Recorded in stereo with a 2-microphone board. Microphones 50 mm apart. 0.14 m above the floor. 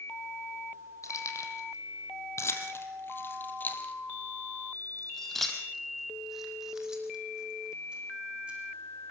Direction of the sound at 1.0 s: 75° left (ahead or behind).